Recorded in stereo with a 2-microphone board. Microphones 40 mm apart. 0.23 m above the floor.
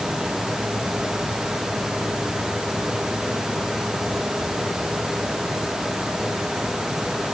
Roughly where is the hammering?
No hammering in this recording.